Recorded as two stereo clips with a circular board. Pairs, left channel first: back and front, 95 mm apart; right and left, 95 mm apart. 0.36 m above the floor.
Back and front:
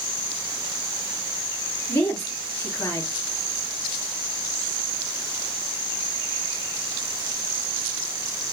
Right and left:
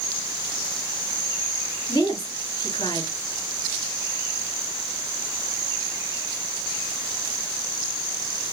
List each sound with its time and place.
1.9 s a woman speaking: 120° right, 3 m